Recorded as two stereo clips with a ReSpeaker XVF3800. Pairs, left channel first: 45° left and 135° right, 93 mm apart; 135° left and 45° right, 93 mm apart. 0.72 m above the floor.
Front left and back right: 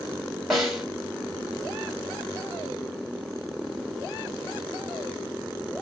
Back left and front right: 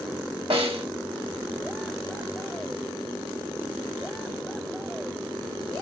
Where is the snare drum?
45° right, 2.5 m.